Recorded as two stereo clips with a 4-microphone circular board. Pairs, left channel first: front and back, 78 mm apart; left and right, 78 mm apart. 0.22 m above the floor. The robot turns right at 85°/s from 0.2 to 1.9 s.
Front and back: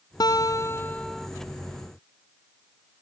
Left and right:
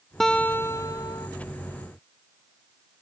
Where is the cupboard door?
No cupboard door in this recording.